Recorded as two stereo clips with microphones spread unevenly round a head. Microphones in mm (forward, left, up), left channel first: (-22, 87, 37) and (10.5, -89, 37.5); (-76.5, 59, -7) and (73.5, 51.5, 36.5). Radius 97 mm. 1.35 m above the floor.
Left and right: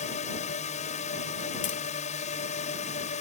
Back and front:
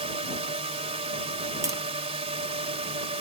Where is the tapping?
55° left.